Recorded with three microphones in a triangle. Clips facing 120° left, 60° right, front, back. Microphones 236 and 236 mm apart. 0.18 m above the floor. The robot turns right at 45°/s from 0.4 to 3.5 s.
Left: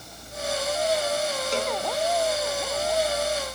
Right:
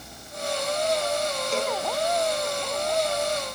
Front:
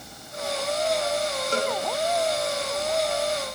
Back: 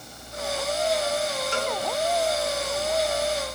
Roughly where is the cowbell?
Ahead left.